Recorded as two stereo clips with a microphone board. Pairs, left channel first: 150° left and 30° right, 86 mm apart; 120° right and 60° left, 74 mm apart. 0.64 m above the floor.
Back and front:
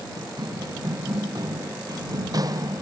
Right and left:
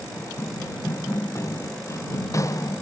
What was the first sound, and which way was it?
Running footsteps, 70° right.